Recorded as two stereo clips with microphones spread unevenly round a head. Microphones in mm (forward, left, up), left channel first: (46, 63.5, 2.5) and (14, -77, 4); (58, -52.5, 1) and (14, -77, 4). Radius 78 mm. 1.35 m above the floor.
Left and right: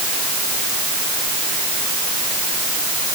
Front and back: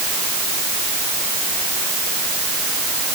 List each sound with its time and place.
Only background noise.